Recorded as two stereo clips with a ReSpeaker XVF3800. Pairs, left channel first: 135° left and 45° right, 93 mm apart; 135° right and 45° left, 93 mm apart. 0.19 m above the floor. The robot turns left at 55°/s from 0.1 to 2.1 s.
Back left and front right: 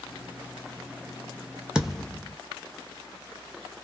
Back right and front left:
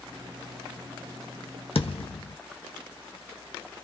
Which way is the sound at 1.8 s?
125° right.